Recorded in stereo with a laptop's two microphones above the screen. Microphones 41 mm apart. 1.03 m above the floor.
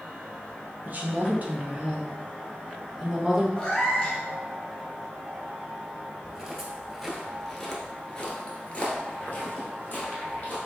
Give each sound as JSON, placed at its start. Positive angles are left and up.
{"t": 0.8, "sound": "a woman speaking", "side_deg": -40, "distance_m": 0.7}
{"t": 3.6, "sound": "a cat meowing", "side_deg": 15, "distance_m": 1.1}
{"t": 6.2, "sound": "footsteps", "side_deg": -15, "distance_m": 1.3}